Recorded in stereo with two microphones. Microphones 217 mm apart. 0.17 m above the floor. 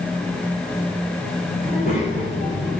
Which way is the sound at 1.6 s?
45° left (ahead or behind).